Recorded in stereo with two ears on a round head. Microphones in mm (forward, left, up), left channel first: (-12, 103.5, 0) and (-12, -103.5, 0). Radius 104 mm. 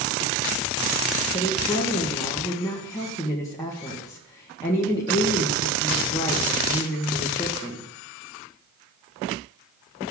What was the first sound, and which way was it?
A woman speaking, 15° left (ahead or behind).